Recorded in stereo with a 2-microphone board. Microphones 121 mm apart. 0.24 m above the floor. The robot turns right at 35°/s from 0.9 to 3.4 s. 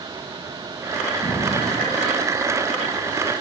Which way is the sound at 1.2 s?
155° left.